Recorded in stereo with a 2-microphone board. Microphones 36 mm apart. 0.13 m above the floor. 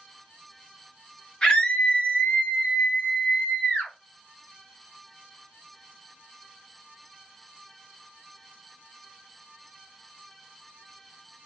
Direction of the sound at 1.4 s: 20° left (ahead or behind).